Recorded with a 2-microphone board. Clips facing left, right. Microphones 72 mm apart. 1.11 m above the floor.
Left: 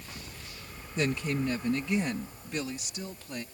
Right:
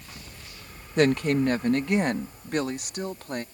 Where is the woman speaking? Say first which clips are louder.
Right 8 dB; 65° right (ahead or behind); by 3.4 s 55° right (ahead or behind).